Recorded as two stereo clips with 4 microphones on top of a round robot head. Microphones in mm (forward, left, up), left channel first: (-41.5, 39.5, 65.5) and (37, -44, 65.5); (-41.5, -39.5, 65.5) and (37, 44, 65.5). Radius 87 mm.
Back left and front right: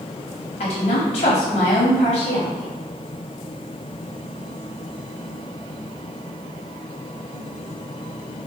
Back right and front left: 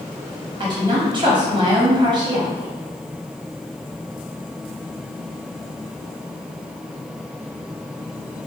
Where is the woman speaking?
100° left, 1.0 m.